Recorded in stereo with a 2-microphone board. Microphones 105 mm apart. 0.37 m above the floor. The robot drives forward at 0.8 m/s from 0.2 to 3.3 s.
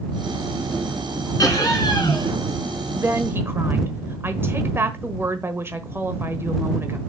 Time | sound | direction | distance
1.4 | laughter | 35° left (ahead or behind) | 4.5 m
2.9 | a woman speaking | 25° right (ahead or behind) | 1.0 m